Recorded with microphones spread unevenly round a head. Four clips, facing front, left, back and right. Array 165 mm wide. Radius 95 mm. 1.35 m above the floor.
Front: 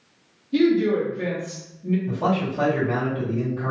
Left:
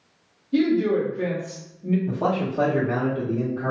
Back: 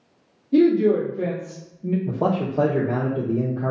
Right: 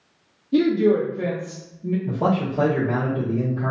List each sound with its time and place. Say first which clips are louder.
0.5 s a woman speaking: right 2 dB, back 2 dB; 140° right, 1.0 m; by 2.0 s 165° left, 0.7 m
2.1 s a man speaking: right 2 dB, back 2 dB; 175° right, 0.6 m